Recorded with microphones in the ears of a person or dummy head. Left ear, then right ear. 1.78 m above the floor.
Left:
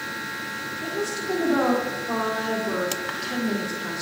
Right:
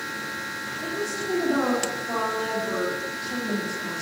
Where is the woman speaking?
5° left (ahead or behind), 1.5 m.